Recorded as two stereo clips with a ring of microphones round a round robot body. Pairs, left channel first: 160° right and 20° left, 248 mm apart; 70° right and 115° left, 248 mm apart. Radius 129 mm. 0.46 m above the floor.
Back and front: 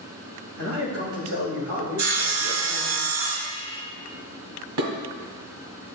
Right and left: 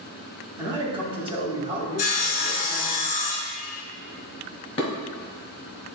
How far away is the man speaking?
About 3 m.